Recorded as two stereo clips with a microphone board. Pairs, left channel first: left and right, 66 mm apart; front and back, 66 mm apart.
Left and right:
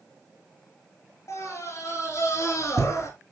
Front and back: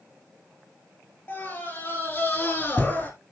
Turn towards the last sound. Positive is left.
turn(degrees=50)